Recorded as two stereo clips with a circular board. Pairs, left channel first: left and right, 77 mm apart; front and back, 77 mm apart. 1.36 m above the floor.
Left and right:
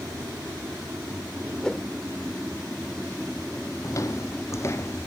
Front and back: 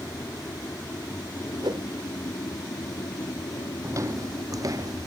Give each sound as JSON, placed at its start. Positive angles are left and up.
{"t": 0.0, "sound": "an aircraft", "azimuth_deg": -40}
{"t": 1.6, "sound": "a whoosh", "azimuth_deg": 170}
{"t": 3.8, "sound": "footsteps", "azimuth_deg": 135}